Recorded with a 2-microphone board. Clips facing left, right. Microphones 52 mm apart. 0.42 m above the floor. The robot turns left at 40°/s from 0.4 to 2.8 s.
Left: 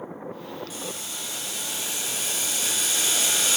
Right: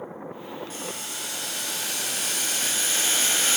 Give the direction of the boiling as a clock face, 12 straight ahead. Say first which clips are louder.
Right 1 dB; 2 o'clock.